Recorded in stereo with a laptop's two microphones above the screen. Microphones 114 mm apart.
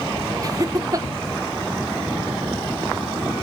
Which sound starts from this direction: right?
Laughter, at 0.4 s.